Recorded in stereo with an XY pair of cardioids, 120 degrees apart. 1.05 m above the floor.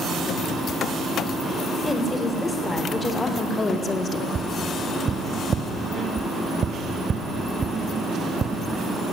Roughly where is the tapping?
Ahead right.